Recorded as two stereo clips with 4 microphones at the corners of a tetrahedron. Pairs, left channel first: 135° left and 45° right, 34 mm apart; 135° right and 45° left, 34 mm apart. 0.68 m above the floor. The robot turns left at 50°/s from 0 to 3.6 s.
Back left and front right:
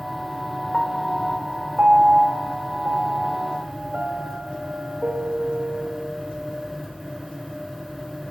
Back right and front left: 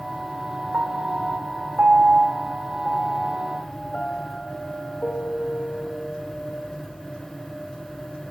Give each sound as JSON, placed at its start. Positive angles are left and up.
{"t": 0.7, "sound": "a piano", "azimuth_deg": 60, "distance_m": 0.9}